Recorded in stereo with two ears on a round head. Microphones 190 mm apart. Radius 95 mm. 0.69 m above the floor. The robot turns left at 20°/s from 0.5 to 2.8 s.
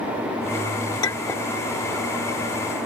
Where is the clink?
20° left (ahead or behind); by 1.5 s 10° left (ahead or behind).